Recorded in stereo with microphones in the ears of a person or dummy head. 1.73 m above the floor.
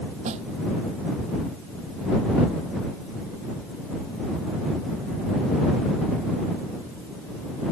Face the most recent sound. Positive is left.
turn(degrees=-40)  # may be behind; listen again after turning